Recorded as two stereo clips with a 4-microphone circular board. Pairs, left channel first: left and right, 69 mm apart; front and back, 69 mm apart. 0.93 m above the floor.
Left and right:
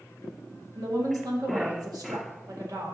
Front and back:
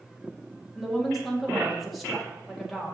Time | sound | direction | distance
0.8 | a woman speaking | 90° right | 1.9 m